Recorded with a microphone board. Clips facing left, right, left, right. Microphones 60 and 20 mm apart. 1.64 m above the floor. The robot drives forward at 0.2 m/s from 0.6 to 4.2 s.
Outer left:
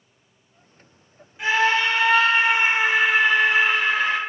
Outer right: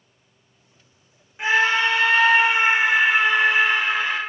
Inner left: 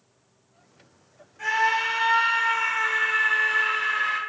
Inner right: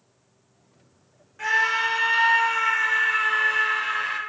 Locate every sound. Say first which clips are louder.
1.4 s a scream: outer right 1 dB, inner right 1 dB; 25° right (ahead or behind), 0.7 m; by 4.2 s 15° right (ahead or behind), 1.2 m